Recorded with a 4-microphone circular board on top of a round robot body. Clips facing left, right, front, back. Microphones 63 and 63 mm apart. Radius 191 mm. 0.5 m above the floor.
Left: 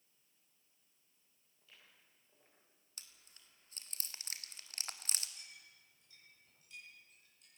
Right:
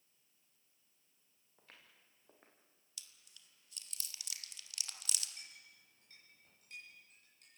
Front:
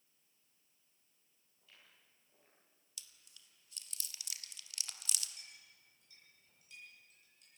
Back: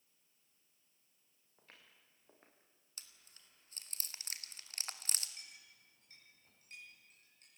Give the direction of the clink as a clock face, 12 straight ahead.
4 o'clock.